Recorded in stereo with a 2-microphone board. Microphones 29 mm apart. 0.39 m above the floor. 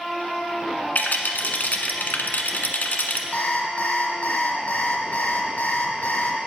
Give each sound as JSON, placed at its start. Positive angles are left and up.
{"t": 0.9, "sound": "a rattle", "side_deg": 80, "distance_m": 1.2}
{"t": 3.3, "sound": "an alarm clock", "side_deg": 70, "distance_m": 2.0}